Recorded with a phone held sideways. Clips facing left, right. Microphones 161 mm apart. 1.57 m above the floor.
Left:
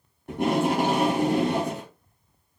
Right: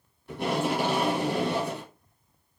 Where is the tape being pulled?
50° left (ahead or behind), 2 m.